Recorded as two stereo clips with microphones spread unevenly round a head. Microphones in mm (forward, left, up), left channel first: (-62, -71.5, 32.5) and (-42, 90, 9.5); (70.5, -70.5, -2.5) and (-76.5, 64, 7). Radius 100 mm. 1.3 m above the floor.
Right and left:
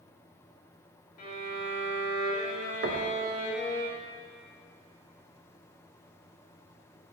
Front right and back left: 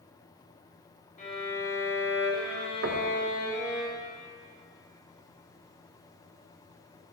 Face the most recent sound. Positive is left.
turn(degrees=110)